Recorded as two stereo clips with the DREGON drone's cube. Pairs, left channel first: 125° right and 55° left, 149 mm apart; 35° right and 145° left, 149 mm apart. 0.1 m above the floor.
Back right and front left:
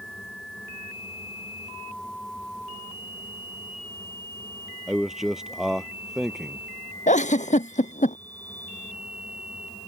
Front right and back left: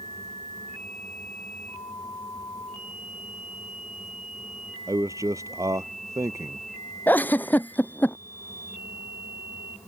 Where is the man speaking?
140° left.